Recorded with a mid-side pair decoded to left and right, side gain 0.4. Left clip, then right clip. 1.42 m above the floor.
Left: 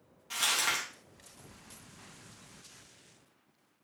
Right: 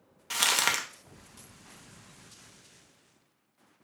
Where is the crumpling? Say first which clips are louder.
Right 4 dB; 65° right, 0.6 m.